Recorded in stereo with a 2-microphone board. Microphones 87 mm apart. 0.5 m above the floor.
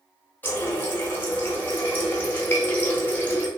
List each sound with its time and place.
0.4 s a running tap: 20° left (ahead or behind), 0.6 m